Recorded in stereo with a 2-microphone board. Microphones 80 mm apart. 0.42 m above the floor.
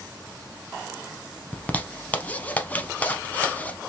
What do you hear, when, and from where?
1.5 s a zipper: 20° left (ahead or behind), 0.6 m